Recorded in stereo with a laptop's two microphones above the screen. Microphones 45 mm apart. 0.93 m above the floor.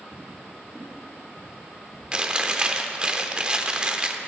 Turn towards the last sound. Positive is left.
turn(degrees=-20)  # may be behind; listen again after turning